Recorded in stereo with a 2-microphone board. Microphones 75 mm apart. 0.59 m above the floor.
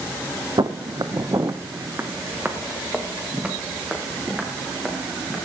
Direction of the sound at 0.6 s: 60° right (ahead or behind).